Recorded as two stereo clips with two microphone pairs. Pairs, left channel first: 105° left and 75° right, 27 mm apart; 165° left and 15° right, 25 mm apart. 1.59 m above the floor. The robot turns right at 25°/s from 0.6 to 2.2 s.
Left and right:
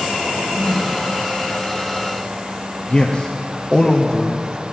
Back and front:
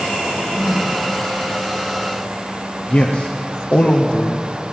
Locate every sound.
0.3 s a drawer: 145° right, 3 m; by 0.8 s 140° right, 3 m
2.9 s a man speaking: 170° left, 0.9 m